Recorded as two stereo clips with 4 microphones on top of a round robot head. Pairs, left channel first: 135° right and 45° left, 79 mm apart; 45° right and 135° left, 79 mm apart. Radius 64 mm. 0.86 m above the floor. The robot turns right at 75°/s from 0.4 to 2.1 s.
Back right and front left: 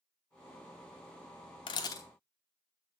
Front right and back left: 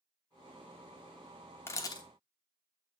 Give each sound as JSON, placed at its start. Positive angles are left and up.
{"t": 1.7, "sound": "a camera shutter", "azimuth_deg": -105, "distance_m": 0.9}